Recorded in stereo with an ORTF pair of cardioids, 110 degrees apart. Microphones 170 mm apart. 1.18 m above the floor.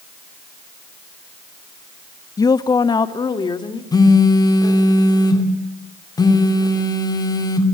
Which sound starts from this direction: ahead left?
A phone buzzing, at 3.9 s.